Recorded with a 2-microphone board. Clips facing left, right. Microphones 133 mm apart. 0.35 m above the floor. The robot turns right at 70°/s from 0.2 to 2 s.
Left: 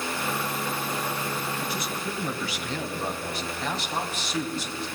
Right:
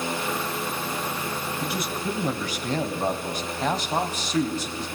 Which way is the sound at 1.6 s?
60° right (ahead or behind).